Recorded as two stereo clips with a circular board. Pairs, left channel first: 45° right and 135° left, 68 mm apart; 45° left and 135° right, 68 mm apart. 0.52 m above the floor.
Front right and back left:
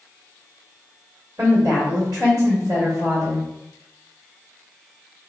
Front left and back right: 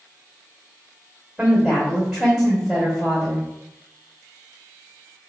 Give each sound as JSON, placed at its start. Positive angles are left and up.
{"t": 1.4, "sound": "a woman speaking", "azimuth_deg": 160, "distance_m": 1.5}